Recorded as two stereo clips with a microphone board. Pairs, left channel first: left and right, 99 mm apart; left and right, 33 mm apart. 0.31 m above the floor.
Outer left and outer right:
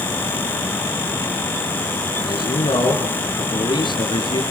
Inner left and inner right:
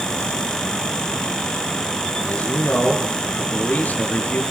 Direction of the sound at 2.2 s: 55° left (ahead or behind).